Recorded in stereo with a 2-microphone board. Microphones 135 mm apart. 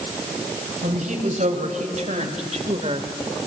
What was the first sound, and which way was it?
A woman speaking, 70° right (ahead or behind).